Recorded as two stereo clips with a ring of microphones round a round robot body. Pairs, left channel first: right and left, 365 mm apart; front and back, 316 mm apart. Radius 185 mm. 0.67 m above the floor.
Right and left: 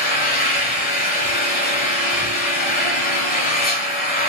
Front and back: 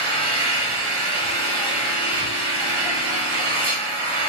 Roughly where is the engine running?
Behind right.